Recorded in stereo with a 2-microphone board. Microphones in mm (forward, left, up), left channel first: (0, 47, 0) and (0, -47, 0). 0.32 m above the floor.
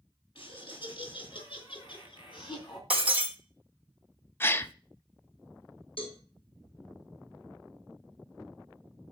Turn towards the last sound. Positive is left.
turn(degrees=70)  # may be behind; listen again after turning